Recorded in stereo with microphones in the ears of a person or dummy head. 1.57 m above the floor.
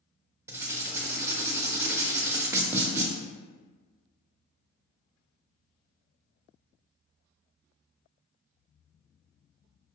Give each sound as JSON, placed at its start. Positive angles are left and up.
{"t": 0.5, "sound": "writing", "side_deg": -10, "distance_m": 0.6}